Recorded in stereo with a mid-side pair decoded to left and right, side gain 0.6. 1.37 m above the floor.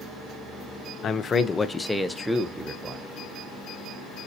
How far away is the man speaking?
About 0.8 m.